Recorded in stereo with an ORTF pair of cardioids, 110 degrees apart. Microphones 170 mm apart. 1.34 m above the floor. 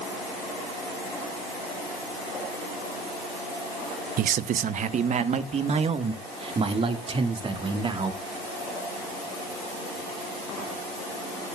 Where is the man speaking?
60° right, 0.8 m; by 8.2 s 30° right, 3 m.